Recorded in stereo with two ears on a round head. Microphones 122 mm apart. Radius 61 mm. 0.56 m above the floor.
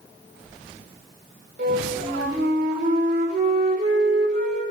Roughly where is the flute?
Right.